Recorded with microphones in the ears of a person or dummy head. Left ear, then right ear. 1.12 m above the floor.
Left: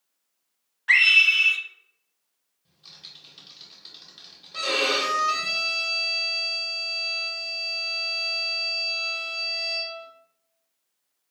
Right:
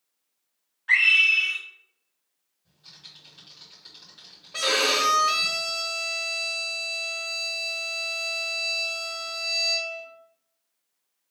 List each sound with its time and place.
0.9 s a scream: 20° left (ahead or behind), 0.6 m
2.6 s typing on a keyboard: 15° left (ahead or behind), 1.2 m
4.5 s a violin: 70° right (ahead or behind), 0.8 m